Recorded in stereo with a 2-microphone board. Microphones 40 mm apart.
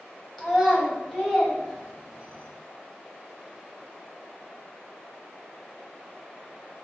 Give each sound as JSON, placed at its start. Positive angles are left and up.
{"t": 0.4, "sound": "a child speaking", "side_deg": -5, "distance_m": 1.4}